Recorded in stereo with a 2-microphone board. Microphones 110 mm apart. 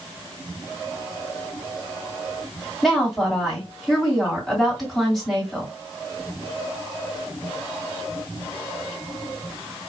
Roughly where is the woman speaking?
Centre.